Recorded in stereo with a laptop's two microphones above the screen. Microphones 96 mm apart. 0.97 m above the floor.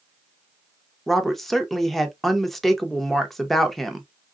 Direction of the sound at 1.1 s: Centre (ahead or behind).